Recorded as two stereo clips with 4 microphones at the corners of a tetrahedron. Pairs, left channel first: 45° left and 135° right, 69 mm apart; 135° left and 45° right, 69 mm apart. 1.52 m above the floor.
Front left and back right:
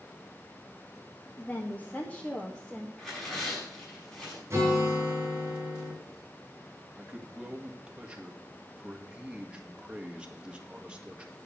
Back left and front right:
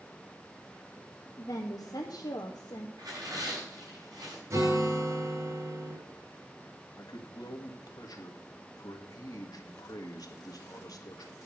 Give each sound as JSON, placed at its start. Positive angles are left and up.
{"t": 1.4, "sound": "a woman speaking", "azimuth_deg": 105, "distance_m": 1.4}
{"t": 3.0, "sound": "tearing paper", "azimuth_deg": -40, "distance_m": 5.5}
{"t": 4.5, "sound": "a guitar", "azimuth_deg": -80, "distance_m": 6.5}
{"t": 7.0, "sound": "a man speaking", "azimuth_deg": 150, "distance_m": 1.7}